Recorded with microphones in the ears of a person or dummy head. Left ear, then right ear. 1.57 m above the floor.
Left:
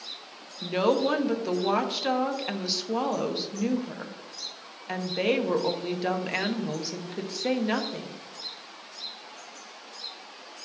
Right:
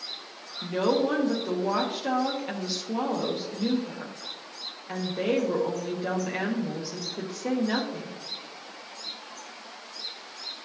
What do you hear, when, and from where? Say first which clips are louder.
0.6 s a woman speaking: left 1 dB; 25° left (ahead or behind), 0.9 m